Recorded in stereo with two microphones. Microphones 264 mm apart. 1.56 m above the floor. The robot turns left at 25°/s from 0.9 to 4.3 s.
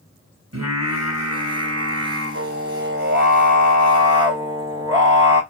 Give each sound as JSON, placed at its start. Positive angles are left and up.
{"t": 0.5, "sound": "singing", "azimuth_deg": -80, "distance_m": 3.5}